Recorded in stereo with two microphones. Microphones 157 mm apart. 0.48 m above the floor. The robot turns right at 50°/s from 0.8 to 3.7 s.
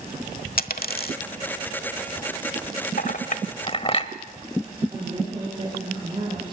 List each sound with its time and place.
0.6 s a dropped coin: 75° left (ahead or behind), 1.1 m
3.0 s a clink: 70° left (ahead or behind), 1.2 m; by 4.1 s 40° left (ahead or behind), 1.2 m
4.9 s a woman speaking: 30° right (ahead or behind), 9.5 m